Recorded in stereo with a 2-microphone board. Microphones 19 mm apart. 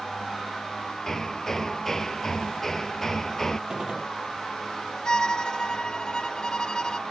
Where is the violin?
45° left (ahead or behind).